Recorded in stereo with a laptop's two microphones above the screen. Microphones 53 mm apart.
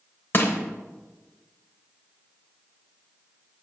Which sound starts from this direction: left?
Crushing, at 0.3 s.